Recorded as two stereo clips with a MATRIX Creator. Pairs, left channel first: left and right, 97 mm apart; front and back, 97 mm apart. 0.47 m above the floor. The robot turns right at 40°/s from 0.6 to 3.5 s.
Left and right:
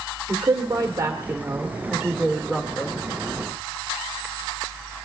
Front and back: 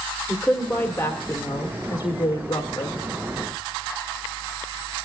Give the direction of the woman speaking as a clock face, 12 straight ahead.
2 o'clock.